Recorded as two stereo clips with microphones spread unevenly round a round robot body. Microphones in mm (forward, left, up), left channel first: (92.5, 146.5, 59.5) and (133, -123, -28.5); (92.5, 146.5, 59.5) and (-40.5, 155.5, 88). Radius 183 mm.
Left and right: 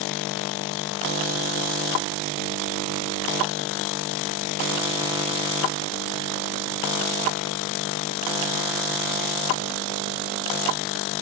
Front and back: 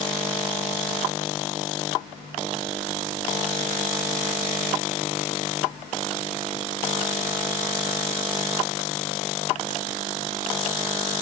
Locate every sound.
Only background noise.